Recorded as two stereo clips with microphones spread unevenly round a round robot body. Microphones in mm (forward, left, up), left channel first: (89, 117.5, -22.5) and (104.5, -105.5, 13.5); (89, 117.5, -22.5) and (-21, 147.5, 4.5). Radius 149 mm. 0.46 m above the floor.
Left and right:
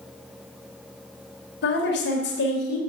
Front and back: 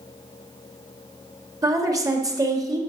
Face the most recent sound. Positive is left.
turn(degrees=100)